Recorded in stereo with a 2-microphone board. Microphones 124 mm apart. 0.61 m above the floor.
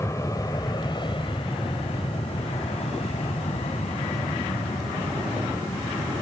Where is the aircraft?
25° left (ahead or behind); by 6.2 s 75° left (ahead or behind).